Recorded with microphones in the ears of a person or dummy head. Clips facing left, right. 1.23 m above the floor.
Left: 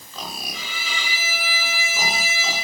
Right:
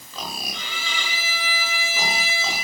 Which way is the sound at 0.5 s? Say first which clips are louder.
Even; 5° left (ahead or behind).